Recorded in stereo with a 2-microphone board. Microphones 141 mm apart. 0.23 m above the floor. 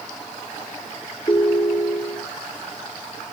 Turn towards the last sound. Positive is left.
turn(degrees=35)  # may be behind; listen again after turning